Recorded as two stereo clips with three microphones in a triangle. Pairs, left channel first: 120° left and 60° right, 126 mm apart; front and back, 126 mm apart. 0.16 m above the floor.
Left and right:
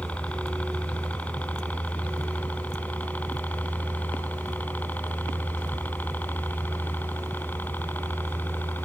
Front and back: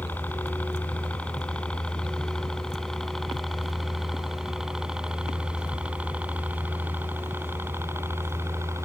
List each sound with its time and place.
0.0 s a helicopter: 55° left; by 8.9 s 170° left